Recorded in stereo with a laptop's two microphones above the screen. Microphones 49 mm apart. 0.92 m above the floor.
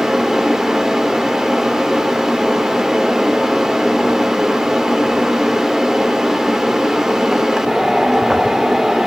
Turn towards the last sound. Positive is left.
turn(degrees=-10)  # may be behind; listen again after turning